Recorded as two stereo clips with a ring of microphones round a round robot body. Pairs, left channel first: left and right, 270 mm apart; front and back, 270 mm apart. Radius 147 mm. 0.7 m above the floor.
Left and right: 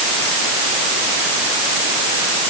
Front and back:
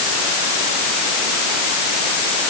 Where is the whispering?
No whispering in this recording.